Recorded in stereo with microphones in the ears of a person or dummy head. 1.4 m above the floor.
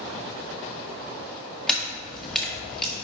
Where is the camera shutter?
10° left (ahead or behind), 1.7 m.